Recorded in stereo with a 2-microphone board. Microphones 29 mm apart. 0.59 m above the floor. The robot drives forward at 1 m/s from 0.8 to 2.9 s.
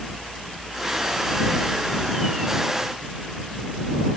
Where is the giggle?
No giggle in this recording.